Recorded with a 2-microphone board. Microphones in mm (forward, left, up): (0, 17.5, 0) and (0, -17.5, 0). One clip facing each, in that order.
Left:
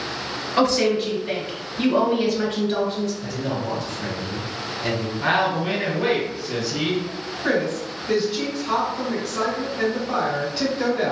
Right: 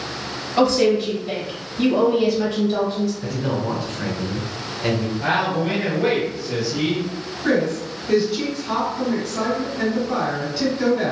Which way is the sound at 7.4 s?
15° left (ahead or behind).